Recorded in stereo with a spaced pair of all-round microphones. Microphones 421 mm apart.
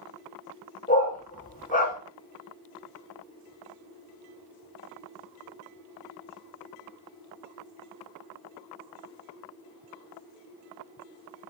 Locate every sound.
0.9 s a dog barking: 20° left (ahead or behind), 0.8 m